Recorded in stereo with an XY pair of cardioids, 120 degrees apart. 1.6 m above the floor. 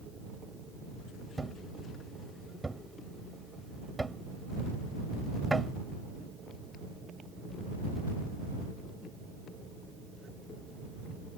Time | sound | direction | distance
1.4 | a thud | 15° right | ?